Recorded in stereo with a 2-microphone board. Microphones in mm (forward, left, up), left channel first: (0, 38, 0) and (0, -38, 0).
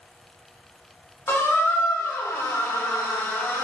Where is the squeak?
35° left (ahead or behind), 0.6 m.